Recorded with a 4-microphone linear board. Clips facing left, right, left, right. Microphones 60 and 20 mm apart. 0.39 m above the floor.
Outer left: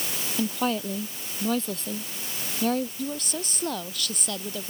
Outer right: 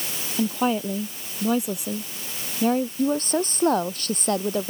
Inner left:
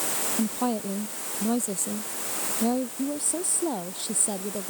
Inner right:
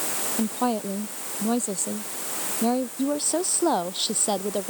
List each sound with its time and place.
0.4 s a woman speaking: 15° right (ahead or behind)
3.0 s a woman speaking: 40° right (ahead or behind)